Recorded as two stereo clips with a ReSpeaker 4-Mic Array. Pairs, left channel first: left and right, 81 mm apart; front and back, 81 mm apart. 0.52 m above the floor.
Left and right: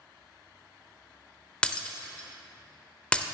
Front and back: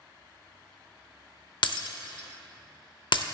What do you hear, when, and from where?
1.6 s breaking glass: 10° left, 0.6 m